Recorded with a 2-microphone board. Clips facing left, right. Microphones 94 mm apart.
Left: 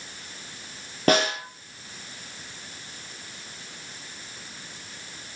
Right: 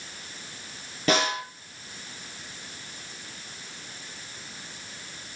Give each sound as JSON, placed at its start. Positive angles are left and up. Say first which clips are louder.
{"t": 1.1, "sound": "a snare drum", "louder": "left 3 dB", "side_deg": 45, "distance_m": 4.5}